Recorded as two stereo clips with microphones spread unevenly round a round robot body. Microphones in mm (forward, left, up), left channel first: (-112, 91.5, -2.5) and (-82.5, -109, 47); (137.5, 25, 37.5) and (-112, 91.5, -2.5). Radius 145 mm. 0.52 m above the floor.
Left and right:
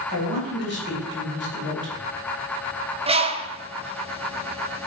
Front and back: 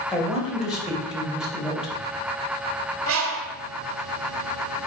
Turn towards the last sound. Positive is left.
turn(degrees=-145)